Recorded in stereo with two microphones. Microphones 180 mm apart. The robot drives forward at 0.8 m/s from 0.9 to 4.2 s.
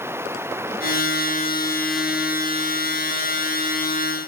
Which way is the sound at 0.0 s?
15° right (ahead or behind).